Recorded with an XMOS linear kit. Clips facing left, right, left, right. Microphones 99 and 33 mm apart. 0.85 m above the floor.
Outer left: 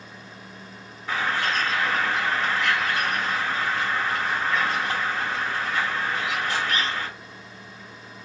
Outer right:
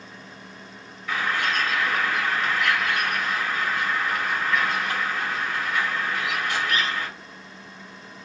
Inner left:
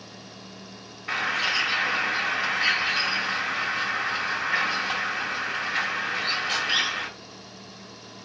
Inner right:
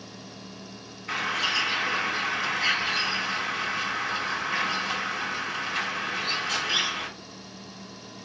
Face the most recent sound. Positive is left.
turn(degrees=35)  # may be behind; listen again after turning